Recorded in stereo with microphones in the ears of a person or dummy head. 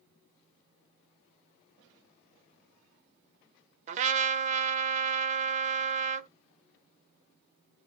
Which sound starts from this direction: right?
A trumpet, at 3.9 s.